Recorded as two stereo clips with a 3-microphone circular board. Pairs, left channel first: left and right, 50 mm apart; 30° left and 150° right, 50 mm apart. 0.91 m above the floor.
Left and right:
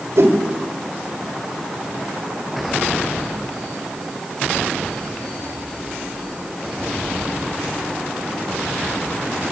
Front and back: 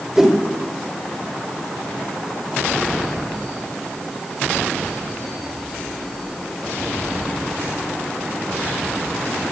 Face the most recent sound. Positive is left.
turn(degrees=-70)